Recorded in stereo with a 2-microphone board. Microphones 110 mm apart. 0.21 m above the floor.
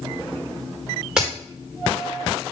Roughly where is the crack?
Centre.